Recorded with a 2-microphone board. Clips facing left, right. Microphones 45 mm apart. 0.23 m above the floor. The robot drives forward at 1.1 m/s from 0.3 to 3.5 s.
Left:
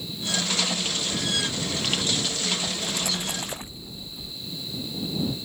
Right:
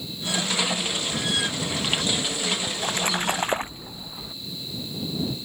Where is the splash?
45° right (ahead or behind).